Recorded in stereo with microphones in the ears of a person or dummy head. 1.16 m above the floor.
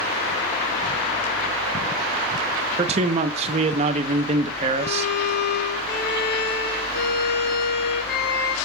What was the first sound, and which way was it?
A man speaking, 35° right (ahead or behind).